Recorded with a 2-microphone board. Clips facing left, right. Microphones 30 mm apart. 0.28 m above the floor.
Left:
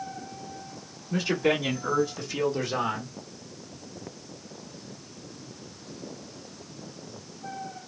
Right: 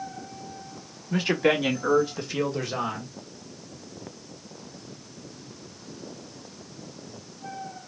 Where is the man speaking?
50° right (ahead or behind), 2 m; by 3.1 s 20° left (ahead or behind), 1.3 m.